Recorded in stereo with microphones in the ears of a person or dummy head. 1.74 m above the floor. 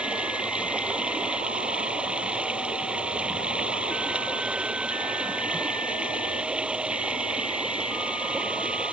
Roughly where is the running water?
Centre.